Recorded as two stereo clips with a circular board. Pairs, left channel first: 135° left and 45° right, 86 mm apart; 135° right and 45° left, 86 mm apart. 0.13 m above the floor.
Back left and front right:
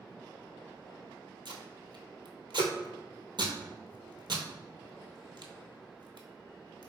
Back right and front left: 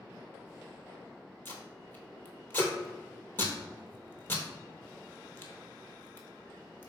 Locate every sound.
1.4 s tape being pulled: 70° right, 0.7 m